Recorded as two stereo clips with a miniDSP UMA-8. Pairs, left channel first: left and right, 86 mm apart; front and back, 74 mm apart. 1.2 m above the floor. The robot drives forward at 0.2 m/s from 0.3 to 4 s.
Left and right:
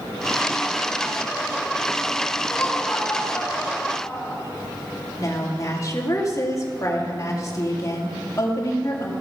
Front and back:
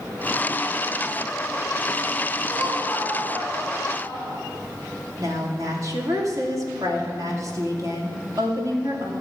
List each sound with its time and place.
2.5 s laughter: 165° left, 3.5 m
5.2 s a woman speaking: 140° left, 2.5 m